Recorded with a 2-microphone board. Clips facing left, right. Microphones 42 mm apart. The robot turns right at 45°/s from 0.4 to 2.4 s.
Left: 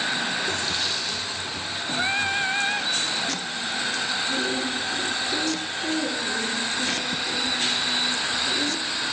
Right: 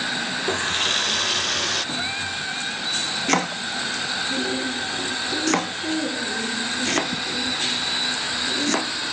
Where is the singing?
20° left (ahead or behind); by 2.9 s 40° left (ahead or behind).